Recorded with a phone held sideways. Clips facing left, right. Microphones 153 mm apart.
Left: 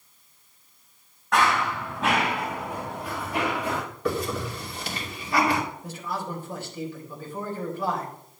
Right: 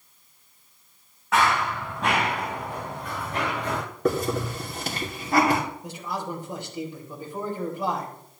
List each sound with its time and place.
1.3 s running footsteps: centre (ahead or behind), 3.5 m; by 3.8 s 10° left (ahead or behind), 4.5 m
4.0 s a hiss: 45° right (ahead or behind), 2.5 m
5.8 s a man speaking: 20° right (ahead or behind), 3.5 m